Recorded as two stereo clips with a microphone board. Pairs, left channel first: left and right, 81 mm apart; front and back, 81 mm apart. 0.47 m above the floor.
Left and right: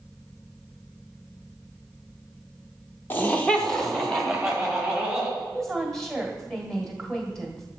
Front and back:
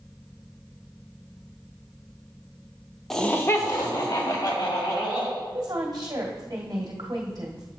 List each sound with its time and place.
3.1 s laughter: 80° left, 0.8 m; by 5.3 s 5° right, 3 m
5.4 s a woman speaking: straight behind, 1.6 m